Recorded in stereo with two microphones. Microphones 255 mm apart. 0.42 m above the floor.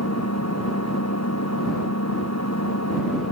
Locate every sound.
0.0 s an engine running: 90° left